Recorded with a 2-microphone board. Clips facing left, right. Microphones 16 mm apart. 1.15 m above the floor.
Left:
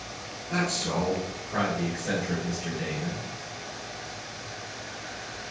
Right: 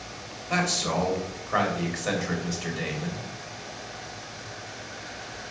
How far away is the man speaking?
About 2.5 m.